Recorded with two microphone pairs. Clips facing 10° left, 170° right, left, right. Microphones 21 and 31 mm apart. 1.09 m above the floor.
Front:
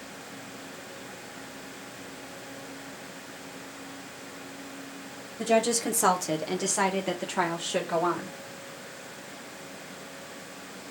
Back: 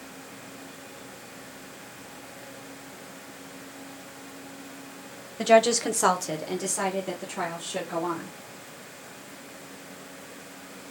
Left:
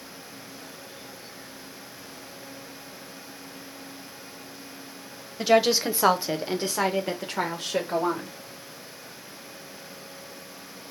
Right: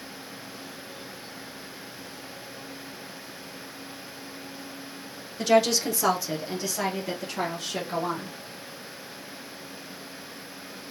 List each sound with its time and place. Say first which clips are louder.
5.4 s a woman speaking: back 5 dB, left 1 dB; 170° left, 0.8 m; by 8.3 s 45° left, 1.7 m